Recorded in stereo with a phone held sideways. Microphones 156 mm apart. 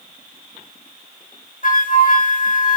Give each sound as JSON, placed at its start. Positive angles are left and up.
{"t": 1.6, "sound": "a flute", "side_deg": 60, "distance_m": 0.8}